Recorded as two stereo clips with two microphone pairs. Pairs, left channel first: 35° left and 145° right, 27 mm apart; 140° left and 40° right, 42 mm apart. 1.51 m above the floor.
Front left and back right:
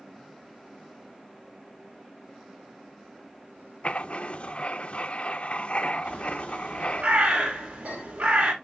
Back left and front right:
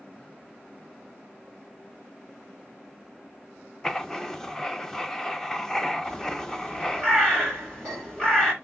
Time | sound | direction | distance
3.8 | writing | 65° left | 0.7 m
6.0 | a bird | 140° right | 5.5 m